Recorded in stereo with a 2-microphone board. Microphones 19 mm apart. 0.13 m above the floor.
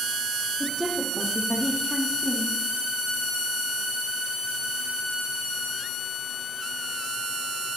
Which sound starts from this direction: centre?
A woman speaking, at 0.6 s.